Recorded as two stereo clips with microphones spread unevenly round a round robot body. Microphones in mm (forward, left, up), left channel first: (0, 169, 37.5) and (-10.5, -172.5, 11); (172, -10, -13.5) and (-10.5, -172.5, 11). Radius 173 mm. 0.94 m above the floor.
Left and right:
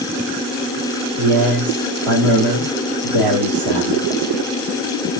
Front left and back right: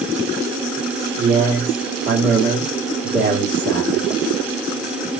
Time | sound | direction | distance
1.2 | a man speaking | 95° right | 2.5 m